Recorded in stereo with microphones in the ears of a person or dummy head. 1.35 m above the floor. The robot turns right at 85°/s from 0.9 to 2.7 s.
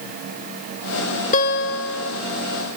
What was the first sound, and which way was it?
A guitar, 45° left.